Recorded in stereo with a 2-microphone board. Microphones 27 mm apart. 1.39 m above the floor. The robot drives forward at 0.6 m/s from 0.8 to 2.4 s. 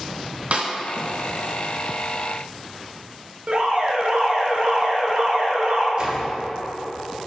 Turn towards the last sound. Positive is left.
turn(degrees=-35)  # may be behind; listen again after turning